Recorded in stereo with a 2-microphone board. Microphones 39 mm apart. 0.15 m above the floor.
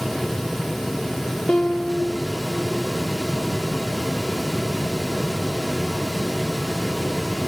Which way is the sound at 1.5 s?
20° left (ahead or behind).